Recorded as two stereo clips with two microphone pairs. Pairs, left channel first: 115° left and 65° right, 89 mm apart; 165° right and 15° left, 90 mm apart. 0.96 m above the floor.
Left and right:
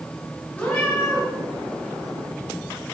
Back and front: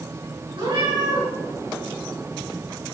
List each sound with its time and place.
0.6 s a cat meowing: 40° left, 6 m